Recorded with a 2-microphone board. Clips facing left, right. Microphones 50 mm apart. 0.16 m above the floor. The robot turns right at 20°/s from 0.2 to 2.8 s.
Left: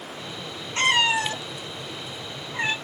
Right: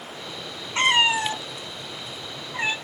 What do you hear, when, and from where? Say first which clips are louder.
0.8 s a cat meowing: right 1 dB; 25° right (ahead or behind), 0.8 m; by 2.8 s 10° right (ahead or behind), 0.8 m